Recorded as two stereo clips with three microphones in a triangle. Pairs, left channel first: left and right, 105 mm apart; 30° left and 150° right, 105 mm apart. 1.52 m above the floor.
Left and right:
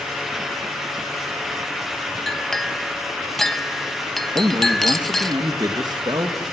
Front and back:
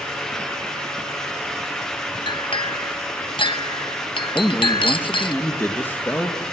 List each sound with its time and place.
2.3 s a clink: 5° left, 1.1 m
4.3 s a man speaking: 40° right, 2.5 m